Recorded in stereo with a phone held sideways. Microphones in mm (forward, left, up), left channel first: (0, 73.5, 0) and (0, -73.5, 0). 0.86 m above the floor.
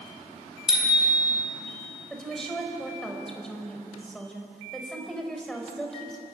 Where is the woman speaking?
5° left (ahead or behind), 4.5 m.